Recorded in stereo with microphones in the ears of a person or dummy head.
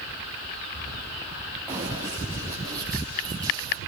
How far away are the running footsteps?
About 7 m.